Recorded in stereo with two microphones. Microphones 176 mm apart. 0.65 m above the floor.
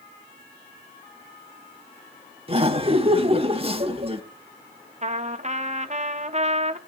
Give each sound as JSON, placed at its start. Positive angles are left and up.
{"t": 2.5, "sound": "laughter", "side_deg": -30, "distance_m": 1.3}
{"t": 5.0, "sound": "a trumpet", "side_deg": -40, "distance_m": 1.0}